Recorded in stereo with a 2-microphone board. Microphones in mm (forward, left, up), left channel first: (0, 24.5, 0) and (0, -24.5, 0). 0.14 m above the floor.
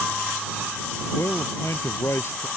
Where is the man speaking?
60° left (ahead or behind).